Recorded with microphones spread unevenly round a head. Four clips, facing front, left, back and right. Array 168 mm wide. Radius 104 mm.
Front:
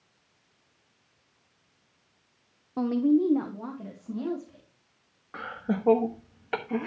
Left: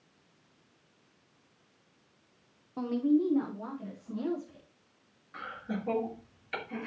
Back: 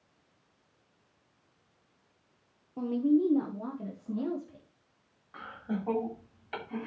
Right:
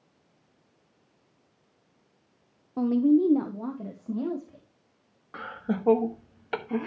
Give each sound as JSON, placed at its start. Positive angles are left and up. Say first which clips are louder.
{"t": 2.8, "sound": "a woman speaking", "louder": "right 6 dB, front 3 dB", "azimuth_deg": -10, "distance_m": 0.7}
{"t": 5.3, "sound": "laughter", "louder": "right 6 dB, front 5 dB", "azimuth_deg": -35, "distance_m": 1.3}